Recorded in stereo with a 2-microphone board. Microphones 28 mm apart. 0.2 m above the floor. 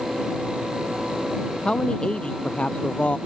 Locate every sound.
1.6 s a man speaking: 35° left (ahead or behind); by 3.2 s 50° left (ahead or behind)